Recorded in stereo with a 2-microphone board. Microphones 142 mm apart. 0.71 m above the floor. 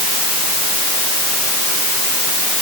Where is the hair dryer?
I don't hear a hair dryer.